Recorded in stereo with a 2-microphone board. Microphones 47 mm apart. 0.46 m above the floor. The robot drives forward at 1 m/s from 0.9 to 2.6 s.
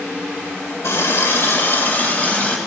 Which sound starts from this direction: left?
A running tap, at 0.8 s.